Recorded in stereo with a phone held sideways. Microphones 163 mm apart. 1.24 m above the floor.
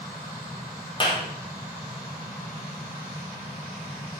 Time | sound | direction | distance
1.0 | a clap | 30° left (ahead or behind) | 3 m